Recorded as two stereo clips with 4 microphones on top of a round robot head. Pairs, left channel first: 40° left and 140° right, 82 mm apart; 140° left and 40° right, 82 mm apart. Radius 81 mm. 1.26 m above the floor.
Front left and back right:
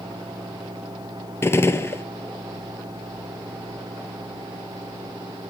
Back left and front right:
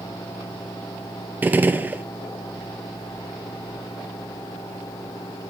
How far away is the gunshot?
About 0.6 m.